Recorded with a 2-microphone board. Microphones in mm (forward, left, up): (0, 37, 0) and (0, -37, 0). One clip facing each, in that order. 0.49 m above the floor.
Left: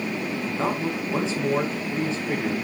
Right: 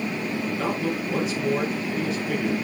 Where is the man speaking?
30° left (ahead or behind), 5 m.